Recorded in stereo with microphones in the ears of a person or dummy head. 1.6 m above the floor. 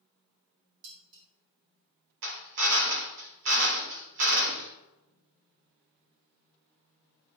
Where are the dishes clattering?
55° right (ahead or behind), 4 m.